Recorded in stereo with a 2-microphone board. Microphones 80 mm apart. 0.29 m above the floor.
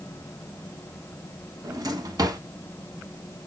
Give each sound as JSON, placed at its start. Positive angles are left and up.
{"t": 1.6, "sound": "a drawer", "side_deg": -50, "distance_m": 1.0}